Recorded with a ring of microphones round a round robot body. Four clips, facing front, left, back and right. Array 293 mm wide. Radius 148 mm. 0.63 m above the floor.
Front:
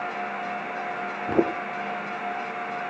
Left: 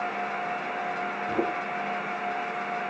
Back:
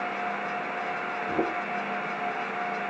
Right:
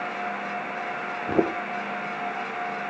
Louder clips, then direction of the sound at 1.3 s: Right 6 dB, front 6 dB; 40° right.